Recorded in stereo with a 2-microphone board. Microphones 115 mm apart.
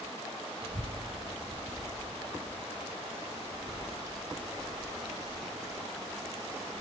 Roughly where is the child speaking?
Right.